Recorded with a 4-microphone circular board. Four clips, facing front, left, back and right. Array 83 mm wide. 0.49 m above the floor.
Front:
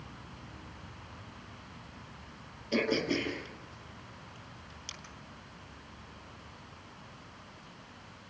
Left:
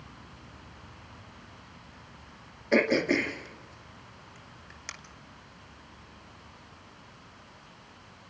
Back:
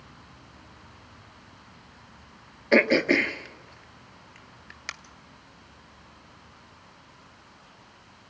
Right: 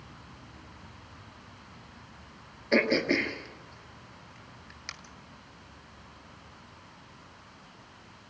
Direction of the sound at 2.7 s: 165° left.